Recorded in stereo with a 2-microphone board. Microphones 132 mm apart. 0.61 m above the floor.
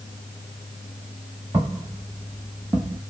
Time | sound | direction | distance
1.5 | footsteps | 15° right (ahead or behind) | 1.9 m